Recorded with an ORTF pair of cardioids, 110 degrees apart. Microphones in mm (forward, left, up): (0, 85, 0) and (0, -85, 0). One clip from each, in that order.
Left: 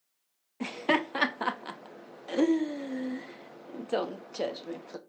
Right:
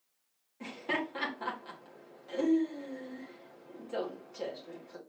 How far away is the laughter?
About 0.9 m.